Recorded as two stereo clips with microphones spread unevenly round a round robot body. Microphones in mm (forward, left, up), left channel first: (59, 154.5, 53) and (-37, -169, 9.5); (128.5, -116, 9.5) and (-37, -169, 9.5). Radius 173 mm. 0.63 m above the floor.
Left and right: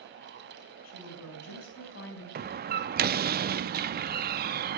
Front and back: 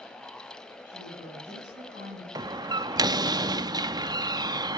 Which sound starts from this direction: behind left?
A woman speaking, at 0.8 s.